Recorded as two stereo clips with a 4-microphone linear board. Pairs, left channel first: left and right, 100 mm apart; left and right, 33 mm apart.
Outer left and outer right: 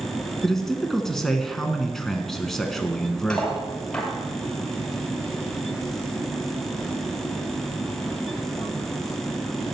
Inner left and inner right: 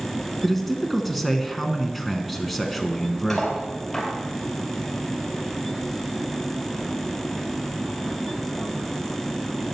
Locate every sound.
0.4 s a man speaking: 5° left (ahead or behind), 1.1 m
3.3 s cutlery clinking: 10° left (ahead or behind), 2 m